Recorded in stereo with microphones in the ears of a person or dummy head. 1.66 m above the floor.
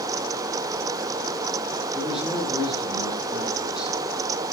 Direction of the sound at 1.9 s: Centre (ahead or behind).